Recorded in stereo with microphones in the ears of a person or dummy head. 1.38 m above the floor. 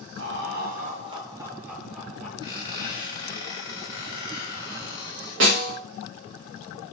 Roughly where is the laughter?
Right.